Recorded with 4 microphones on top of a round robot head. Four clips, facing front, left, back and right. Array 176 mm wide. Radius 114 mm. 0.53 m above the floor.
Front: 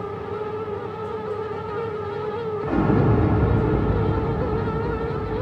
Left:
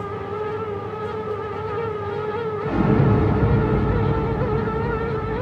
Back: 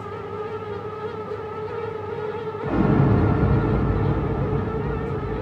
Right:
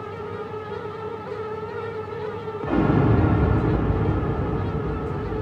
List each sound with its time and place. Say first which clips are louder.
2.6 s an explosion: even, back 1 dB; 70° right, 1.3 m